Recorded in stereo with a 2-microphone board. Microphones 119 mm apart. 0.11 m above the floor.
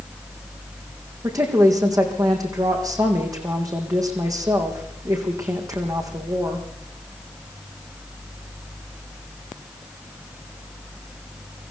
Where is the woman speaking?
30° right (ahead or behind), 5 m.